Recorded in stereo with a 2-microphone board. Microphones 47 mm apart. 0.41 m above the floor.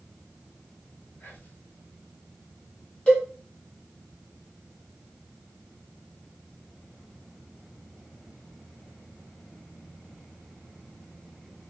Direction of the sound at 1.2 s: 40° left (ahead or behind).